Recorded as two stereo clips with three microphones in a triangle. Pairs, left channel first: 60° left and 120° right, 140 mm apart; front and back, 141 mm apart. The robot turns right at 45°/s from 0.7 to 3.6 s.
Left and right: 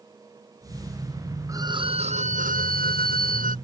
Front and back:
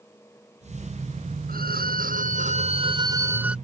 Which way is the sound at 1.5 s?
170° left.